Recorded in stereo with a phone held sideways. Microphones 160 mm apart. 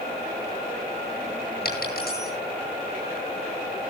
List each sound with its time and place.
1.6 s a dropped coin: 70° left (ahead or behind), 10 m